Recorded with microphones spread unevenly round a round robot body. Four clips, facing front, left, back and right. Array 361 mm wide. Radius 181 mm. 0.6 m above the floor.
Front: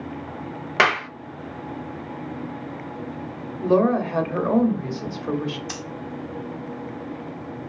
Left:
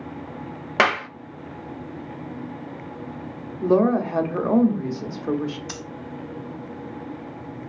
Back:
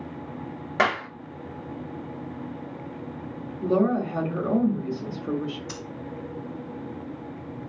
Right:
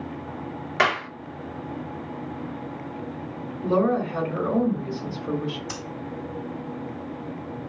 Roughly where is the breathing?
Left.